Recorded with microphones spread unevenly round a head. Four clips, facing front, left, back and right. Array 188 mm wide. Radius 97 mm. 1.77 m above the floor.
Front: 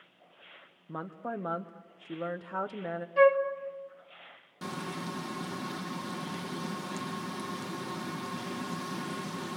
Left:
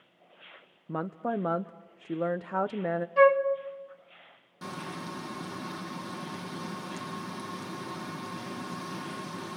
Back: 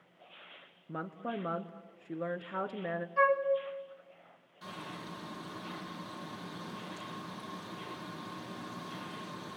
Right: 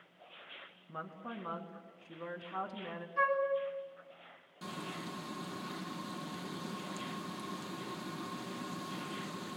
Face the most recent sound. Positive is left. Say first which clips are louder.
# left 4 dB, front 7 dB
turn(degrees=10)